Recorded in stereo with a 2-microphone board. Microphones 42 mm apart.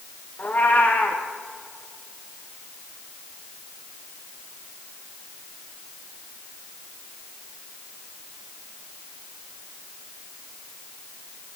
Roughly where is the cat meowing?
Left.